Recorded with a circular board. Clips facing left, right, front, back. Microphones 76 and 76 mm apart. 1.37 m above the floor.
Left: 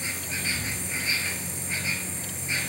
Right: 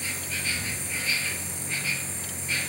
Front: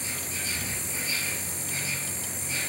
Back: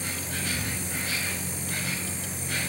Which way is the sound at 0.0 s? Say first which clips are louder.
Left 1 dB, back 3 dB; 160° left.